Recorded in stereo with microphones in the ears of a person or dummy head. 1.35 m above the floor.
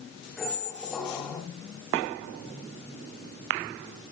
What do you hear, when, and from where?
0.4 s a squeak: 5° left (ahead or behind), 1.2 m